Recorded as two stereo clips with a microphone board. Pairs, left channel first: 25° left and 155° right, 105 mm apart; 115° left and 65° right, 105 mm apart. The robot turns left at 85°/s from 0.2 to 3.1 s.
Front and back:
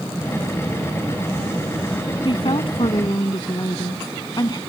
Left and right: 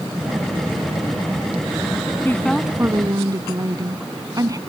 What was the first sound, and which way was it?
A woman speaking, 50° left.